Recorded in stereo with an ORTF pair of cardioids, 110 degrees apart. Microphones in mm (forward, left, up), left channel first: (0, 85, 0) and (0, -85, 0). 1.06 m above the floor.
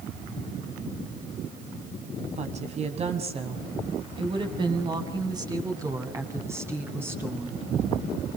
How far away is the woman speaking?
About 6.5 m.